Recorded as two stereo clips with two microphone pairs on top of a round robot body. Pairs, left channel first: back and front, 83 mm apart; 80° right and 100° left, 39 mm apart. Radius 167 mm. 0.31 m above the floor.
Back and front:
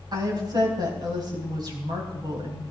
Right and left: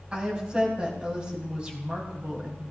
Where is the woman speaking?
35° left, 4 m.